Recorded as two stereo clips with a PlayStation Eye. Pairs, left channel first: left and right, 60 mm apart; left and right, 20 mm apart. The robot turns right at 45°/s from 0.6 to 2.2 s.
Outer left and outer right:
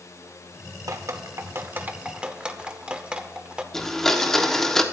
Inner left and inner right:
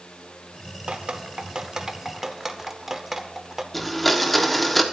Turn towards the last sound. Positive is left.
turn(degrees=5)  # may be behind; listen again after turning